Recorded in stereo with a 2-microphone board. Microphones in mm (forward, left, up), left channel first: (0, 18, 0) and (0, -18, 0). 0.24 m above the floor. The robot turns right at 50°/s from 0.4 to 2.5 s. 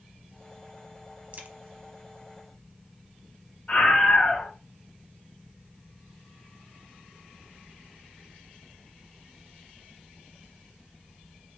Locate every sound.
1.3 s a crack: 45° right (ahead or behind), 0.5 m; by 1.5 s 50° right (ahead or behind), 0.5 m
3.7 s a scream: 25° left (ahead or behind), 1.0 m